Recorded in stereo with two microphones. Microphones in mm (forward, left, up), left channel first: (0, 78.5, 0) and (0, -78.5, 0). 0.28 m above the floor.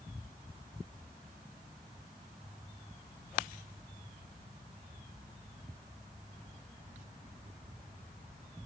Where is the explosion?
I don't hear an explosion.